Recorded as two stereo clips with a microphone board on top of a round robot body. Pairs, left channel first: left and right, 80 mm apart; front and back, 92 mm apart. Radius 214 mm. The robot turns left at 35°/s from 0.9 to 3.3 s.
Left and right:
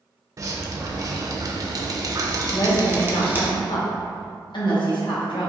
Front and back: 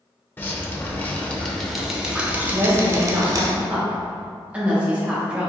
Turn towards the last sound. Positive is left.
turn(degrees=105)